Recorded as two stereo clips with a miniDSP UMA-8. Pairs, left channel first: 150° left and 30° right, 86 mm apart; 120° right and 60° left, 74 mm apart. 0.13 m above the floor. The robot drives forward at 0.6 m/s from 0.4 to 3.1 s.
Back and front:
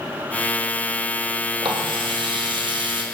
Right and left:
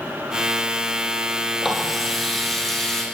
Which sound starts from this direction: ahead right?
A running tap, at 1.6 s.